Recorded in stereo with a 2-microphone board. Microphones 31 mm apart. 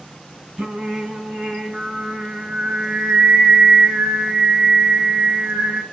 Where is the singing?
30° right (ahead or behind), 3.5 m.